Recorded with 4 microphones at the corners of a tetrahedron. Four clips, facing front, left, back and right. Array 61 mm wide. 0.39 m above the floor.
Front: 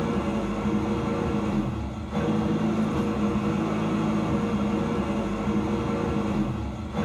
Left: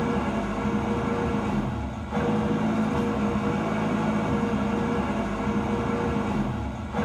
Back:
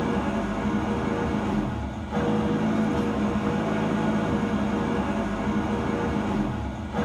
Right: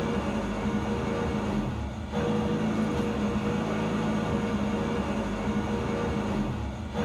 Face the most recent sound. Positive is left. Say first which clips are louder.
# left 3 dB, back 1 dB
turn(degrees=135)